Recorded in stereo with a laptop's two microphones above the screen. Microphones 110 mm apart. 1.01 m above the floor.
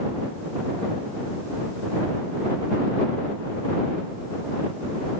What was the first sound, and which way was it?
Only background noise.